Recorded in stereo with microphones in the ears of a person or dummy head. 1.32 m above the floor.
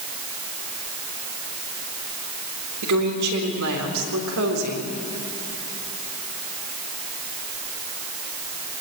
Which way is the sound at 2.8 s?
75° right (ahead or behind).